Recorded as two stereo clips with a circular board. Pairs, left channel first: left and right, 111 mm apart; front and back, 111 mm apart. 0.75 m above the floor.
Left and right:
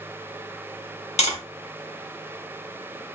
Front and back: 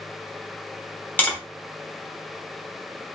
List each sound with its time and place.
1.2 s tapping: 75° left, 1.0 m